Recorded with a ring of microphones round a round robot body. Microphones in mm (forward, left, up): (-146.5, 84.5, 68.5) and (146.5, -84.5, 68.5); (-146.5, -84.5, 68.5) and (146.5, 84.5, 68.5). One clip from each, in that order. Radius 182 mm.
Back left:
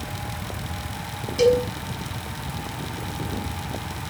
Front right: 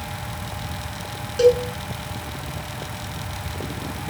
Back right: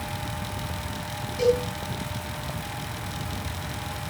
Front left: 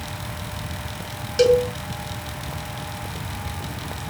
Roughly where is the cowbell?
Left.